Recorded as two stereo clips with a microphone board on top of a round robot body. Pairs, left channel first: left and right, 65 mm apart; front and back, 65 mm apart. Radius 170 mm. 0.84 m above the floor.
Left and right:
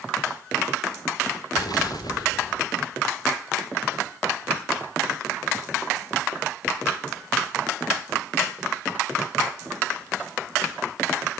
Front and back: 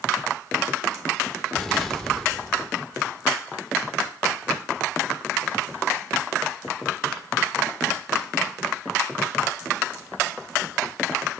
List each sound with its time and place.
1.5 s an explosion: 85° left, 3.5 m